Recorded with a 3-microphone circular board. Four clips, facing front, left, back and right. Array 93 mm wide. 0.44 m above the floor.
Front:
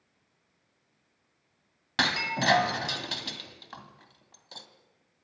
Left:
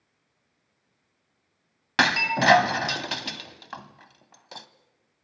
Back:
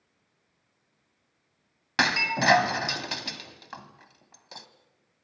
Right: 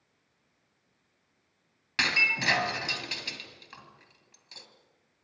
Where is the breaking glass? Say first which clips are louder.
Left 9 dB, back 3 dB; 100° left, 1.8 m.